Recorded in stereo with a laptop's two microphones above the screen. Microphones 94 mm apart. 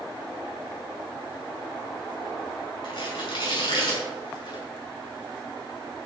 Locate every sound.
2.8 s tearing paper: 55° left (ahead or behind), 5.5 m